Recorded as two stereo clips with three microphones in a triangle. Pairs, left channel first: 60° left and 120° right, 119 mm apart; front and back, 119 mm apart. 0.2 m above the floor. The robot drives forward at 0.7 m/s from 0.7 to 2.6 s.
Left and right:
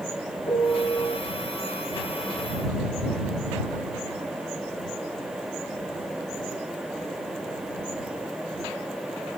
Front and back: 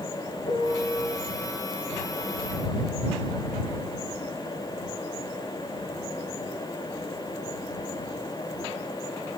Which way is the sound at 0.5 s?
20° left.